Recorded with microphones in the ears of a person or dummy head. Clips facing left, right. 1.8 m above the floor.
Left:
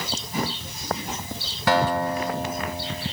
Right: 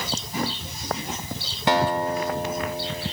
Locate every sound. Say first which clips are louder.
1.7 s a guitar: even; 15° right (ahead or behind), 3.5 m